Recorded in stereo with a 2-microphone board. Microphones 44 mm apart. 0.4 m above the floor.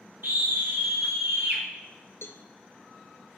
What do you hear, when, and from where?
0.2 s a scream: 55° right (ahead or behind), 5 m
2.2 s a cowbell: 65° left (ahead or behind), 1.1 m